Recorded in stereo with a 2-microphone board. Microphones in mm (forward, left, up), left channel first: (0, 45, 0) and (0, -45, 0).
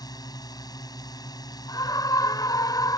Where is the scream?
45° left (ahead or behind).